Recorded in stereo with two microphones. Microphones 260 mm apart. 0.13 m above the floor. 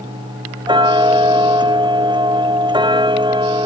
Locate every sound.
0.7 s ticking: 15° right (ahead or behind)